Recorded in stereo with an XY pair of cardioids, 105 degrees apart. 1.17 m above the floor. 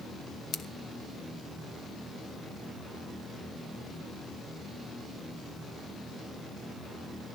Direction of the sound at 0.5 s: 65° left.